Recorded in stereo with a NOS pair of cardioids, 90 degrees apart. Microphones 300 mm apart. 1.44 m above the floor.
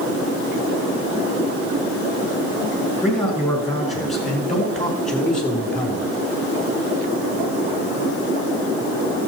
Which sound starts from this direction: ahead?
A man speaking, at 3.0 s.